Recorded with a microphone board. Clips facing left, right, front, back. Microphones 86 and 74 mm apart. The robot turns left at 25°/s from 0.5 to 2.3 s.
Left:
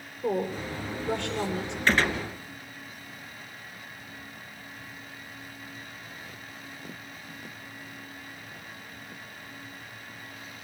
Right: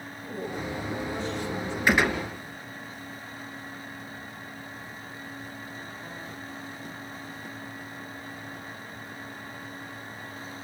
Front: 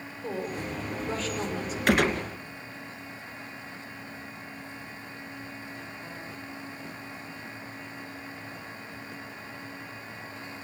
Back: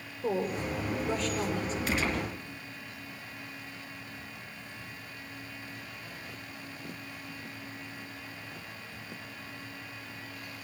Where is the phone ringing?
I don't hear a phone ringing.